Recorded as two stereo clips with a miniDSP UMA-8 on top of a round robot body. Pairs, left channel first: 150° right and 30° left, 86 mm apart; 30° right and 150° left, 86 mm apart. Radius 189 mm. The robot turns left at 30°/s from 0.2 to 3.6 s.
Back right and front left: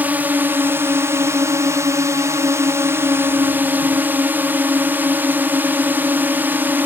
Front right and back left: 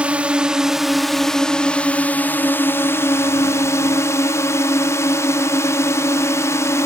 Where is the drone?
85° left; by 6.9 s 20° right.